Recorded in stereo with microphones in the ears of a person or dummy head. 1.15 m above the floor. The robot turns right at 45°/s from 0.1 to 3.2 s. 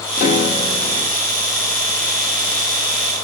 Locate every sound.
0.2 s a piano: 125° left, 0.8 m; by 1.2 s 170° left, 0.8 m